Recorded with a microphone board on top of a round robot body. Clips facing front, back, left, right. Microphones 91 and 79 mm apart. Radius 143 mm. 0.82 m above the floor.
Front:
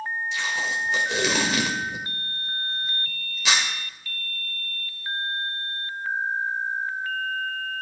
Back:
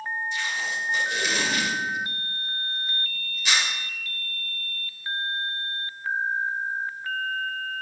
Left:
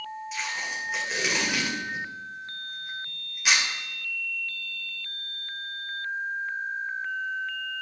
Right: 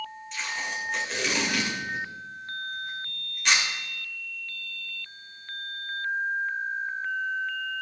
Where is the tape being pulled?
5° left, 2 m.